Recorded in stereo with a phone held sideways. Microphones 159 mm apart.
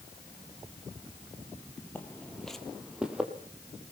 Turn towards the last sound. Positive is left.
turn(degrees=-10)  # may be behind; listen again after turning